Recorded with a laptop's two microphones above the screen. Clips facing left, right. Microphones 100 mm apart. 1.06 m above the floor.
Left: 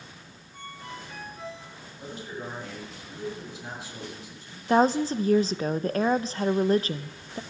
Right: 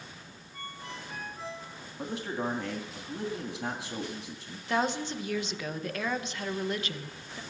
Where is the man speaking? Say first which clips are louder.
Right 4 dB; 70° right (ahead or behind), 2.5 m.